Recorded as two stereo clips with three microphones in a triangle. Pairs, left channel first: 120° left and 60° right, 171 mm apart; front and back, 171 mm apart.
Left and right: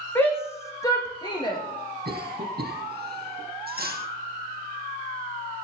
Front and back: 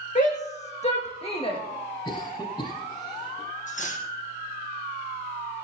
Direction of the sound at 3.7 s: 40° right.